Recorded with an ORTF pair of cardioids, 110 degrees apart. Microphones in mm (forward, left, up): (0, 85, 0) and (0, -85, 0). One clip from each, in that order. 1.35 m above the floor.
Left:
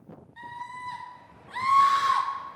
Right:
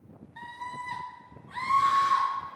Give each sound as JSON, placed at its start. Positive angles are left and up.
{"t": 0.4, "sound": "a scream", "azimuth_deg": -20, "distance_m": 1.9}